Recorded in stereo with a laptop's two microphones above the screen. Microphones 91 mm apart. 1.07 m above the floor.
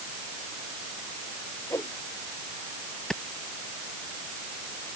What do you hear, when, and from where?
1.7 s a whoosh: 35° left (ahead or behind)
3.1 s a clap: 5° left (ahead or behind)